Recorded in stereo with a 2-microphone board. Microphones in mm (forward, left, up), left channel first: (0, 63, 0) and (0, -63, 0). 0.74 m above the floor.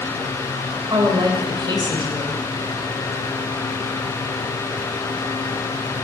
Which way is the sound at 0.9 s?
40° right (ahead or behind).